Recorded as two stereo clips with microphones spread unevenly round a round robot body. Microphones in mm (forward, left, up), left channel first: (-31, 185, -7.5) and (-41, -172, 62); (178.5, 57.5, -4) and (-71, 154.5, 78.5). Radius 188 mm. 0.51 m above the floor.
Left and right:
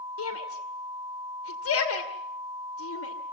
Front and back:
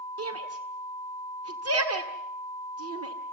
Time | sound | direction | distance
0.2 | a shout | 120° left | 2 m